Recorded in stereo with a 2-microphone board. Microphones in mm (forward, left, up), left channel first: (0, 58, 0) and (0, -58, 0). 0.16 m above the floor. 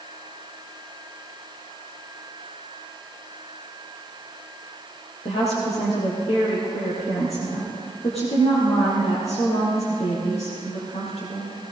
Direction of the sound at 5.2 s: 60° left (ahead or behind).